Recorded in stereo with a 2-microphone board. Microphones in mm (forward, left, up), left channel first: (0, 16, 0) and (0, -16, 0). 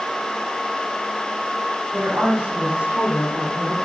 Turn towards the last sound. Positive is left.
turn(degrees=-55)  # may be behind; listen again after turning